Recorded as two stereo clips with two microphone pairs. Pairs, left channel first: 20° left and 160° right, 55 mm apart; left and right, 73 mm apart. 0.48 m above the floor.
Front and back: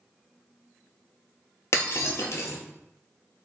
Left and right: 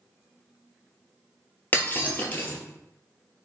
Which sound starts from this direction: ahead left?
Breaking glass, at 1.7 s.